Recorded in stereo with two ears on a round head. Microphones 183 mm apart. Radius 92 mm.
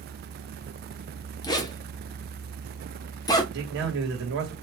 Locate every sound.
1.4 s a zipper: 20° left (ahead or behind), 0.7 m
3.5 s a man speaking: 60° right (ahead or behind), 1.4 m